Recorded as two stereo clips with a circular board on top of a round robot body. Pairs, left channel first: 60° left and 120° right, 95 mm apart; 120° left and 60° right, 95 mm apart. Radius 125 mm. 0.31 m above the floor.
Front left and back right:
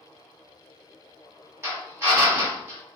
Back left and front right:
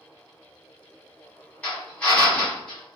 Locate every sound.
1.6 s a drill: 170° right, 1.4 m